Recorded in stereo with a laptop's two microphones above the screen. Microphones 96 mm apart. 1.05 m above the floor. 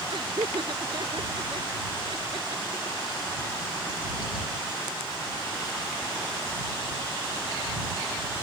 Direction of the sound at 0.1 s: 60° right (ahead or behind).